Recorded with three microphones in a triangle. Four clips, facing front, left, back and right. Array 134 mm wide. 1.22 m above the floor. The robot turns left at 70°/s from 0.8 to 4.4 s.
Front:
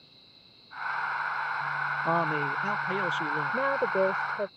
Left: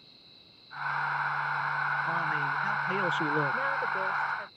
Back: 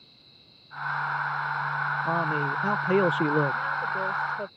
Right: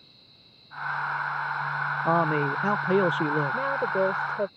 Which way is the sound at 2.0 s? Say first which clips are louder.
Right 7 dB, front 2 dB; 70° right.